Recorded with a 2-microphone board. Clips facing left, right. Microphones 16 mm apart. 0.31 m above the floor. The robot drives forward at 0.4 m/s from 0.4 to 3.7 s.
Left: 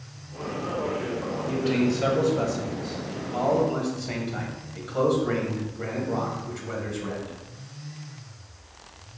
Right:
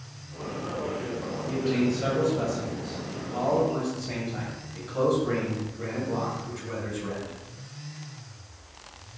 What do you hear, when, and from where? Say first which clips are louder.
1.5 s a man speaking: left 1 dB; 30° left (ahead or behind), 1.5 m; by 7.4 s 25° left (ahead or behind), 1.7 m